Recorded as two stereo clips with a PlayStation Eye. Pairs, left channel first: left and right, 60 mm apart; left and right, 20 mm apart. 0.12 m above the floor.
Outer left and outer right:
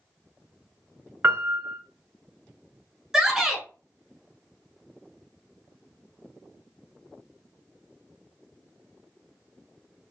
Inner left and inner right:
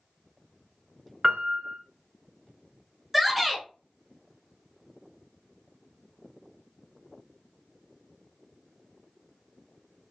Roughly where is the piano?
Right.